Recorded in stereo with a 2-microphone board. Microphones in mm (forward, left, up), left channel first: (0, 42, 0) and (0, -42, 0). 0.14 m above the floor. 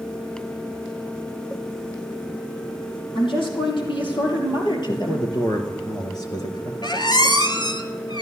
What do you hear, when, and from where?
3.1 s a woman speaking: 75° left (ahead or behind), 4 m; by 5.3 s 55° left (ahead or behind), 2 m
4.9 s a man speaking: 55° left (ahead or behind), 2 m
6.8 s a squeak: 60° left (ahead or behind), 1.1 m